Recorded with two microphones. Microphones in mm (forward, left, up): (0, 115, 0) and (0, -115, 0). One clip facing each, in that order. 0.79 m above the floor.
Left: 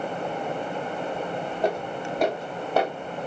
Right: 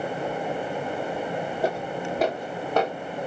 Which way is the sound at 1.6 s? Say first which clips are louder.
Left 2 dB; 10° right (ahead or behind).